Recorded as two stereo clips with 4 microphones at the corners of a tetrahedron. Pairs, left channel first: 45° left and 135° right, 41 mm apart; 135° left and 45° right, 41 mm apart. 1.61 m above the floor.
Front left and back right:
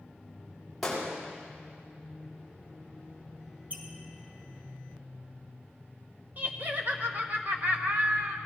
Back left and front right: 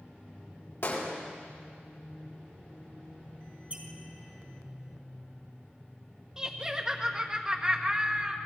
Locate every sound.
0.8 s a gunshot: 130° left, 7 m
3.7 s a squeak: 95° right, 2.5 m
6.4 s laughter: 115° right, 0.8 m